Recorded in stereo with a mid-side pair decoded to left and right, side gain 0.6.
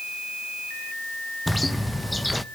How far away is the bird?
About 0.6 m.